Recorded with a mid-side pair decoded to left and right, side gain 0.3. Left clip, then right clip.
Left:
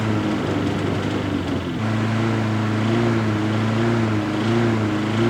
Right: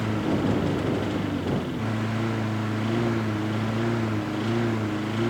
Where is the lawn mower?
60° left; by 5.3 s 65° left.